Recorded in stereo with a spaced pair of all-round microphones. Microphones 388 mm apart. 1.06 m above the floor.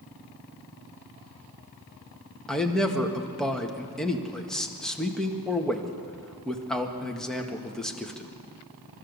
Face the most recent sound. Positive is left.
turn(degrees=0)  # may be behind; listen again after turning